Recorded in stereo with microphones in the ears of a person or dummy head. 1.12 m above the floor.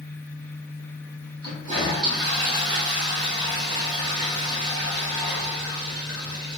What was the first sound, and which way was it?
A toilet flushing, 15° right (ahead or behind).